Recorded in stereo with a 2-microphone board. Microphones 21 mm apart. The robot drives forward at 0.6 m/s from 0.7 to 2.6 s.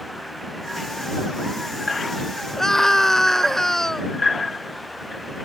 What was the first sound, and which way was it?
A scream, 20° left (ahead or behind).